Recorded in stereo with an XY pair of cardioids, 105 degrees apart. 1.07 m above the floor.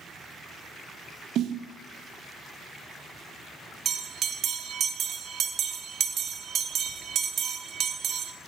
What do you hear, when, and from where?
1.4 s a snare drum: 70° right, 1.0 m
3.9 s a bell: 60° right, 1.0 m